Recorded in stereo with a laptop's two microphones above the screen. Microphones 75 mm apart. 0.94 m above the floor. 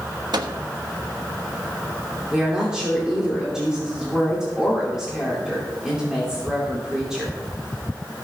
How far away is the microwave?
About 1.1 m.